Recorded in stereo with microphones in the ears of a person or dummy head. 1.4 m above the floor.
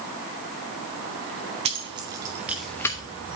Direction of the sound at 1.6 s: 30° right (ahead or behind).